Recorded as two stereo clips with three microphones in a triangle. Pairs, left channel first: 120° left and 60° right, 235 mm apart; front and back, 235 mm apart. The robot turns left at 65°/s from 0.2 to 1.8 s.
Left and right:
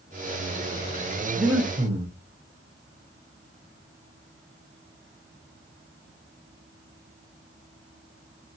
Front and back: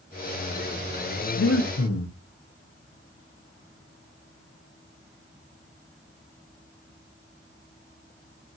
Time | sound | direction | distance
1.4 | breathing | 30° left | 0.6 m